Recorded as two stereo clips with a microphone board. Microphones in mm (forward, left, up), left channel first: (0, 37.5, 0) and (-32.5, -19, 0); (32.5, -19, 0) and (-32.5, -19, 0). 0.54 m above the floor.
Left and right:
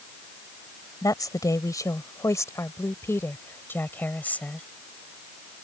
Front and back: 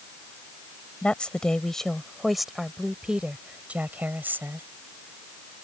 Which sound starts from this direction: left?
A woman speaking, at 1.0 s.